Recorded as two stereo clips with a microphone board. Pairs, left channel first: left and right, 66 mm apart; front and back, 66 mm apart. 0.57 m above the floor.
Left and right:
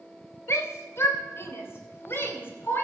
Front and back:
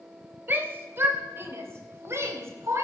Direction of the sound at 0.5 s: 130° left.